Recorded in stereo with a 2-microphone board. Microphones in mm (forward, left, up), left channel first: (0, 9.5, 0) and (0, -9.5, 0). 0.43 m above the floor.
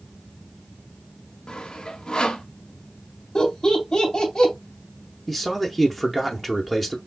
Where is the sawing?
50° left (ahead or behind), 0.8 m.